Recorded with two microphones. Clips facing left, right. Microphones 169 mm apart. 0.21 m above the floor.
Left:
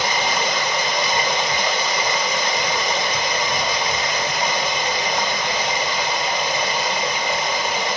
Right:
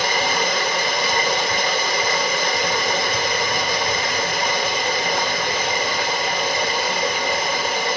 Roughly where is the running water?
Right.